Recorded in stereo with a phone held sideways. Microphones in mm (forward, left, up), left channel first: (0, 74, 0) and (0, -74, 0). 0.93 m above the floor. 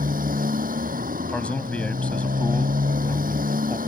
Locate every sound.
0.0 s a motorcycle: 70° right (ahead or behind)
1.3 s a man speaking: 10° left (ahead or behind)